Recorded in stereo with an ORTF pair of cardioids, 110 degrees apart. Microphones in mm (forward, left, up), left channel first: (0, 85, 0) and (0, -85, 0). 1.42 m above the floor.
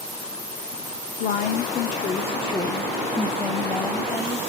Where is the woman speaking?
70° left, 1.0 m; by 4.4 s 10° right, 1.6 m.